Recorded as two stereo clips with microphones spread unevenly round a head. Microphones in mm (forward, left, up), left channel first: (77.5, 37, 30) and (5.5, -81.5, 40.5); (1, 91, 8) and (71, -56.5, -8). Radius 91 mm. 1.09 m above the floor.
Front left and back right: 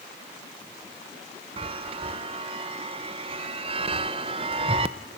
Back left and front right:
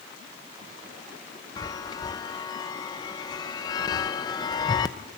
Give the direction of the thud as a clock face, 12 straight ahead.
No thud in this recording.